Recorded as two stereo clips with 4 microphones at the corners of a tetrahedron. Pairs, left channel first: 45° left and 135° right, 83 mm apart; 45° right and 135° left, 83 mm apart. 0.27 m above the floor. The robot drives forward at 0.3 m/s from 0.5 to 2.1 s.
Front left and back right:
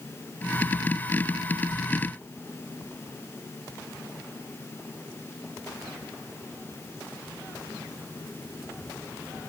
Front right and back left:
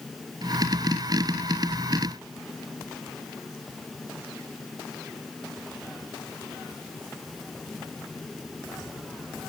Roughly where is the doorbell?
No doorbell in this recording.